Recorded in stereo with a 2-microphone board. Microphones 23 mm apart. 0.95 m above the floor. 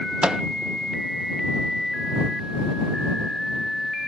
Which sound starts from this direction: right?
A microwave, at 0.2 s.